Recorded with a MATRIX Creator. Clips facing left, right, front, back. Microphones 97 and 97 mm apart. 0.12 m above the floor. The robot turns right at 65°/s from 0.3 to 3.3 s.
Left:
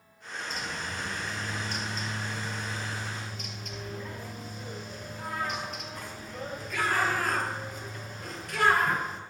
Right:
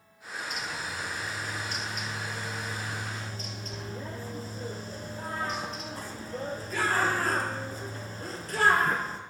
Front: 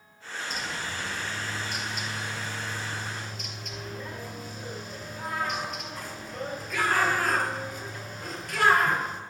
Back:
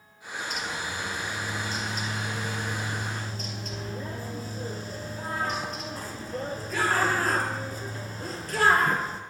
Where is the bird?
45° left, 0.7 m; by 9.2 s 135° right, 0.7 m.